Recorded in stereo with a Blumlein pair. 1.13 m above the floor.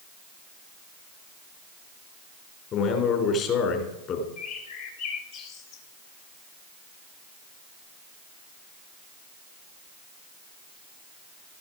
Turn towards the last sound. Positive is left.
turn(degrees=45)